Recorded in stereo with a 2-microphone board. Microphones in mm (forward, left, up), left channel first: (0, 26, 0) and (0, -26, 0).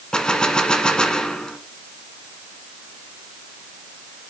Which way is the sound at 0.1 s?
15° left (ahead or behind).